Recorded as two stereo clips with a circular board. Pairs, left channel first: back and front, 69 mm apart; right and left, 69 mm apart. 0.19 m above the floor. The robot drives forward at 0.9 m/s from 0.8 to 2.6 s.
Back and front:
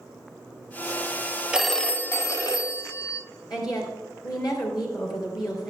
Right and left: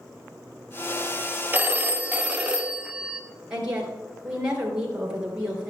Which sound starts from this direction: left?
A phone ringing, at 1.5 s.